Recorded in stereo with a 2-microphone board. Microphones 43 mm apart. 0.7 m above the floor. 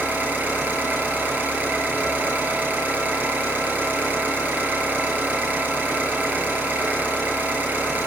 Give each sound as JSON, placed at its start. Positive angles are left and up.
{"t": 0.0, "sound": "an engine running", "side_deg": -40, "distance_m": 7.5}